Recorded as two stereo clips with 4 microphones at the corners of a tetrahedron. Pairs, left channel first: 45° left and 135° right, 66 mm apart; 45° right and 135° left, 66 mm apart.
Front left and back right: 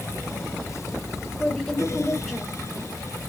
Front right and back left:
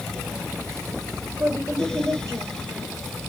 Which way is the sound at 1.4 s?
125° left.